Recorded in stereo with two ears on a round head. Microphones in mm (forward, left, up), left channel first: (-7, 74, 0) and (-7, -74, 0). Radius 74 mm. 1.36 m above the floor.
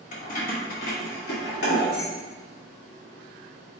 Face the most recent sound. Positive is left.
turn(degrees=75)  # may be behind; listen again after turning